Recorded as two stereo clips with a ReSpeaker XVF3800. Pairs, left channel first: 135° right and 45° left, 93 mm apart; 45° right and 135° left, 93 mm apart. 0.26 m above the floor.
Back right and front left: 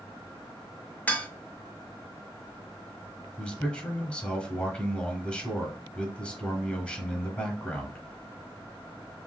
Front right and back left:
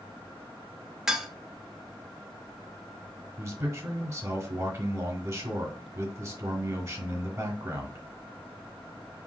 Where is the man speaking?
155° left, 1.1 m.